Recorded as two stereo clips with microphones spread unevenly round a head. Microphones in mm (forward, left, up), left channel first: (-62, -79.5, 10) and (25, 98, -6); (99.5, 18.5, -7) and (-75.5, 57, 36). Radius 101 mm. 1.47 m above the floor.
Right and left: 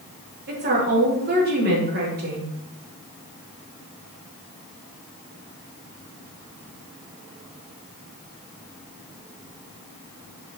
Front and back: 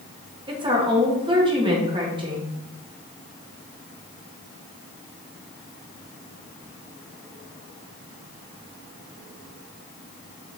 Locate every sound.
0.5 s a woman speaking: 100° left, 3 m